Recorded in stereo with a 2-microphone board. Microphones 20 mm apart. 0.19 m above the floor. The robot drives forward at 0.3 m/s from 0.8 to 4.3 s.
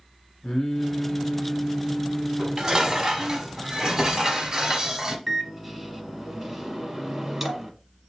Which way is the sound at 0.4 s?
45° left (ahead or behind).